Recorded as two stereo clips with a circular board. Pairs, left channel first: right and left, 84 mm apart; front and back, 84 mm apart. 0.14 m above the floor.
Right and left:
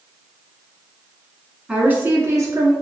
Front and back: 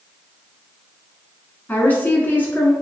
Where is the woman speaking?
35° left, 1.1 m; by 2.7 s 65° left, 1.5 m.